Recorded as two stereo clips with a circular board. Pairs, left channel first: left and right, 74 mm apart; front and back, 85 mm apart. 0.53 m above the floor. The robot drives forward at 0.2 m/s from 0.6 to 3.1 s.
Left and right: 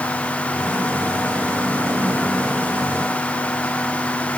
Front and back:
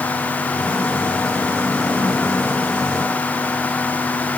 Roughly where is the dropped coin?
I don't hear a dropped coin.